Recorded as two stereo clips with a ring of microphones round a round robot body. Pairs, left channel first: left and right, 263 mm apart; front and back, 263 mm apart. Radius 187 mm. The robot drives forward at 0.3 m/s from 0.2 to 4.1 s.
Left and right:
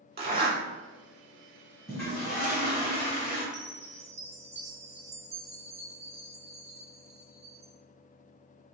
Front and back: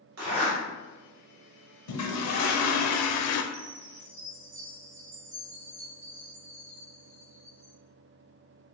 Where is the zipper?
140° right, 1.7 m; by 0.6 s 145° right, 1.8 m.